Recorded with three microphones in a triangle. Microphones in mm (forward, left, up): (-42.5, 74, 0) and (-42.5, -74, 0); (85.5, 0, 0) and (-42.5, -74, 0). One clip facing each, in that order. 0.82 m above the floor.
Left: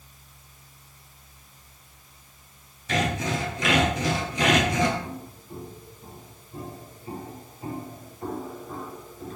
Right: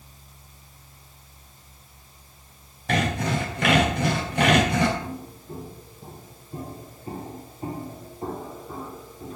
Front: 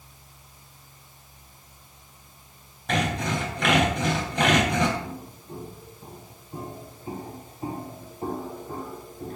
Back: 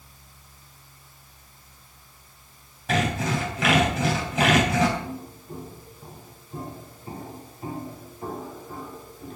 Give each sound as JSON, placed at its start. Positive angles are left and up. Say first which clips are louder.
{"t": 2.9, "sound": "sawing", "louder": "right 2 dB, back 1 dB", "azimuth_deg": -65, "distance_m": 3.5}
{"t": 5.0, "sound": "footsteps", "louder": "right 2 dB, back 2 dB", "azimuth_deg": -60, "distance_m": 5.5}